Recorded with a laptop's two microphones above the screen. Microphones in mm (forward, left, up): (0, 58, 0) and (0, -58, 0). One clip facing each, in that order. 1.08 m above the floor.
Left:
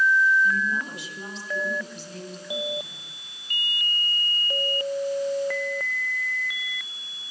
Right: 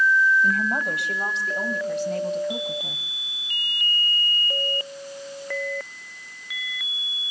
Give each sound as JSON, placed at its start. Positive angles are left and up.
{"t": 0.4, "sound": "a woman speaking", "side_deg": -65, "distance_m": 7.5}